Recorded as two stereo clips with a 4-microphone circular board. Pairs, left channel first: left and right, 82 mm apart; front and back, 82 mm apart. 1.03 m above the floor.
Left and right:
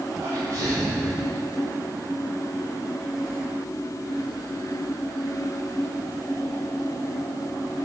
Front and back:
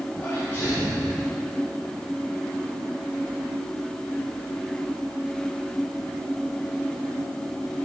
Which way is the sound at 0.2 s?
55° right.